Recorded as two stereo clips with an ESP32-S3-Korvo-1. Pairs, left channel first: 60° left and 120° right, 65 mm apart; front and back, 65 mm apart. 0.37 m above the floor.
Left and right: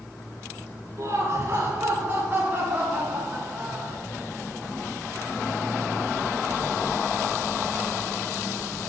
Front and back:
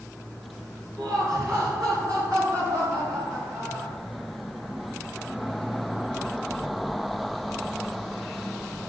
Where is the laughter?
165° right, 5.5 m; by 4.0 s 160° left, 5 m.